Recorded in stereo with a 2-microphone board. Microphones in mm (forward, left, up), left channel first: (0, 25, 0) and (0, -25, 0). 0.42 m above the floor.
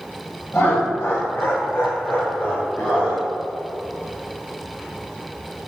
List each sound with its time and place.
0.5 s laughter: 30° left (ahead or behind), 1.0 m; by 3.2 s 35° left (ahead or behind), 2.5 m